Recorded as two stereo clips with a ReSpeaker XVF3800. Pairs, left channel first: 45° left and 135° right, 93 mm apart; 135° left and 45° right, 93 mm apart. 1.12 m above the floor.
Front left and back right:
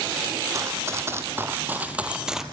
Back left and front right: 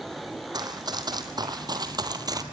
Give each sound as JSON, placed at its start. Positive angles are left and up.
{"t": 0.5, "sound": "running footsteps", "azimuth_deg": -80, "distance_m": 2.5}